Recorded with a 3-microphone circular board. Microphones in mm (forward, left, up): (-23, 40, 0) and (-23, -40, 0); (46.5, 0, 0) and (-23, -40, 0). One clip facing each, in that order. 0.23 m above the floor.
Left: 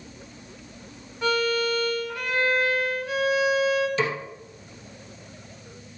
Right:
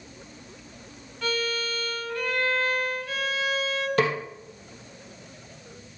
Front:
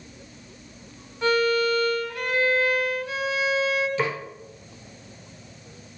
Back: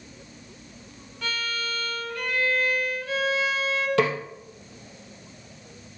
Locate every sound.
1.2 s a violin: 55° left, 1.6 m
4.0 s a snare drum: 125° right, 2.5 m